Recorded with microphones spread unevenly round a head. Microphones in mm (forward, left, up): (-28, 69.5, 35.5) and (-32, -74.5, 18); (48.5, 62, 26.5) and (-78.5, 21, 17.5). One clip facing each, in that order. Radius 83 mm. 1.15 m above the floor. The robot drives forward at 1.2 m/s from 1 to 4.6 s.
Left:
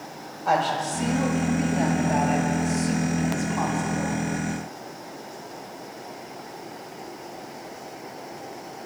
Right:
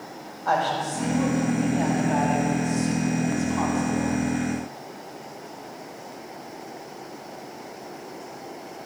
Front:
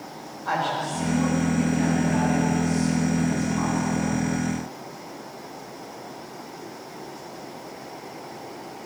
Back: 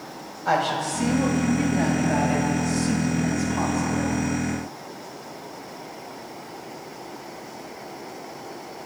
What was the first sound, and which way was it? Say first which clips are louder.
A woman speaking: left 1 dB, back 3 dB; 165° left.